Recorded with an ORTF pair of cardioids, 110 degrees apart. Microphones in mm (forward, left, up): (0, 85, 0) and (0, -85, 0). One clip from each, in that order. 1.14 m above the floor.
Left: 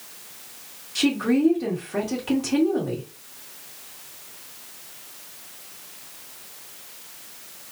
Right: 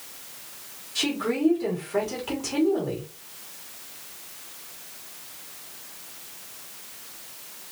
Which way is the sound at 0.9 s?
25° left.